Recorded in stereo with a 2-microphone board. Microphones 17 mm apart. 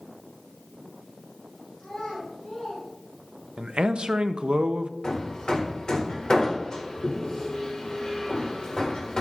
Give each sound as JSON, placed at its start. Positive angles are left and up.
{"t": 1.8, "sound": "a child speaking", "side_deg": 85, "distance_m": 4.0}
{"t": 3.6, "sound": "a man speaking", "side_deg": -60, "distance_m": 0.6}
{"t": 5.0, "sound": "hammering", "side_deg": 45, "distance_m": 1.4}